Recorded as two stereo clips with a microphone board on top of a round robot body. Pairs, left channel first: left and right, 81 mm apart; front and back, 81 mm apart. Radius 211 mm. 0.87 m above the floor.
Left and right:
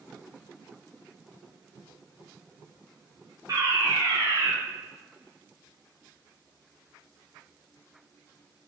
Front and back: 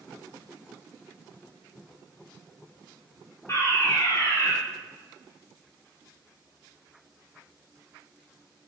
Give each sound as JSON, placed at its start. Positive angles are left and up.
{"t": 3.5, "sound": "a fire alarm", "azimuth_deg": -50, "distance_m": 2.5}